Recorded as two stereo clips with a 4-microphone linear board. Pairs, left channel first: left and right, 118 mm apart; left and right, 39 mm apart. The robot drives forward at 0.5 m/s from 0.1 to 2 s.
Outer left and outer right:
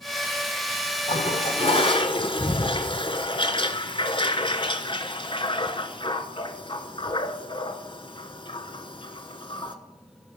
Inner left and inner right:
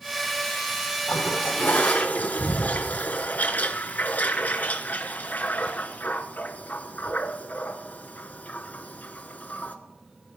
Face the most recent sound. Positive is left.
turn(degrees=45)  # may be behind; listen again after turning